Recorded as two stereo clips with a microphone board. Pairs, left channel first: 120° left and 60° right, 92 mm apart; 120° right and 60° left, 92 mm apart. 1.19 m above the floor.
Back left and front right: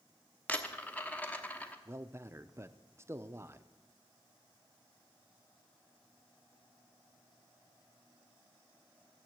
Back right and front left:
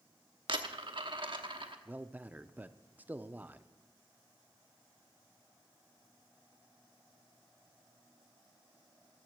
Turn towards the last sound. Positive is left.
turn(degrees=-5)